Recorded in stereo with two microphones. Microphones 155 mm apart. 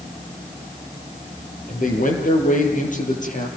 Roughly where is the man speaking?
Left.